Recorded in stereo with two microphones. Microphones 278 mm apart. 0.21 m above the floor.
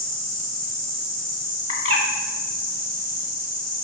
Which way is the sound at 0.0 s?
35° right (ahead or behind).